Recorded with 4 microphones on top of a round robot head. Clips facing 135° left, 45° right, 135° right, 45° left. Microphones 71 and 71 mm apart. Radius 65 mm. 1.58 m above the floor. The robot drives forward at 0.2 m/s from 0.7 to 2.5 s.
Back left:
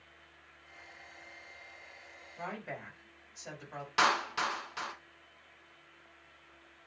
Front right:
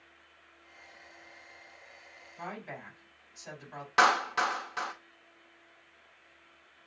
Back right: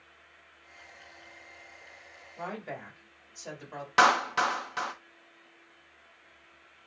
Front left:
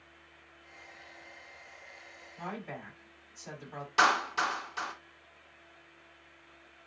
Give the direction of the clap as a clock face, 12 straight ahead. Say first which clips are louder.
Front right 5 dB, back right 4 dB; 3 o'clock.